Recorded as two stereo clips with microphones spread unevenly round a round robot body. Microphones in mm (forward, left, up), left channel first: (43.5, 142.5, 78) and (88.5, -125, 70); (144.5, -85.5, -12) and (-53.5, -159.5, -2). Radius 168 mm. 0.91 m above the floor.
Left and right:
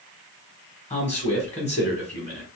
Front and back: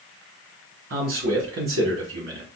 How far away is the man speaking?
About 1.2 m.